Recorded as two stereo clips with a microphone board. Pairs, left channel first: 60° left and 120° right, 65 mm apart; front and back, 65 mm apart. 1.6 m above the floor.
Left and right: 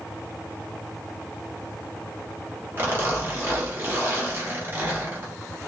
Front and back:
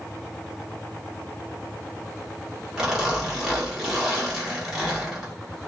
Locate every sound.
2.8 s a zipper: 95° right, 1.2 m